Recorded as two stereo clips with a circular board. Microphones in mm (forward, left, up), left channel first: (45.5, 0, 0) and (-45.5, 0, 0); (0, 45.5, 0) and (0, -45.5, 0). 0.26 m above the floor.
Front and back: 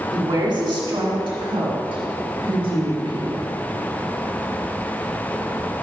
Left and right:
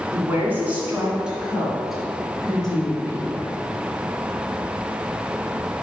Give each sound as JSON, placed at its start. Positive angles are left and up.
{"t": 0.1, "sound": "a woman speaking", "azimuth_deg": -150, "distance_m": 2.0}